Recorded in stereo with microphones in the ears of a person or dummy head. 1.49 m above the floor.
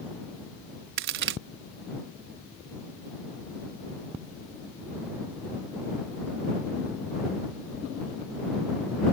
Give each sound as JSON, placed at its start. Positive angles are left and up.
{"t": 1.0, "sound": "a crack", "side_deg": -65}